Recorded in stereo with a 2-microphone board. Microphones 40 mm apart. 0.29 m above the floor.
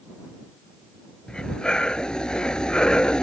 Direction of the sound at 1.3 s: 20° left (ahead or behind).